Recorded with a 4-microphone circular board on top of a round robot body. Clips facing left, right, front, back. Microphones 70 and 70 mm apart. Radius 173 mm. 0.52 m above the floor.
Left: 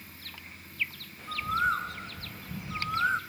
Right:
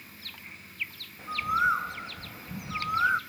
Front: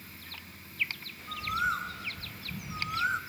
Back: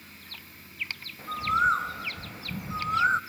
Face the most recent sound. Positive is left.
turn(degrees=-155)